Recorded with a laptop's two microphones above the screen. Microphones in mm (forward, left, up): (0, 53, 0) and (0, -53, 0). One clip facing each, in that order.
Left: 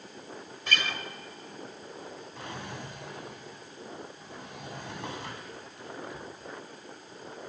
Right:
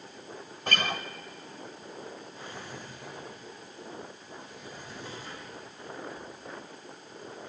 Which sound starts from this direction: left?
A drawer, at 2.4 s.